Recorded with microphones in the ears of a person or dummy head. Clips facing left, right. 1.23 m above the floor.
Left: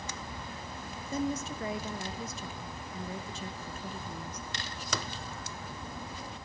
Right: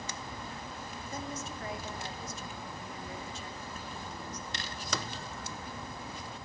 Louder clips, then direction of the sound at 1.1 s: Left 9 dB; 65° left (ahead or behind).